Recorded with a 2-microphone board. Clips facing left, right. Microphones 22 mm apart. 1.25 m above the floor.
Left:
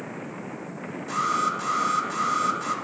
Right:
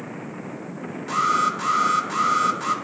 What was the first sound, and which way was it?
An alarm, 25° right (ahead or behind).